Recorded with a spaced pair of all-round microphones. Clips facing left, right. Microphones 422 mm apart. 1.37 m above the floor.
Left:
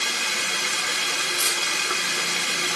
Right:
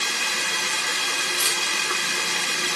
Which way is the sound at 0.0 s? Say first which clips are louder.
Even; 5° right (ahead or behind).